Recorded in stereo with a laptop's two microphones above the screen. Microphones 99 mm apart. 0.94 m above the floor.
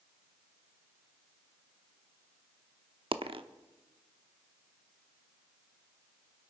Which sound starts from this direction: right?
A dropped coin, at 3.1 s.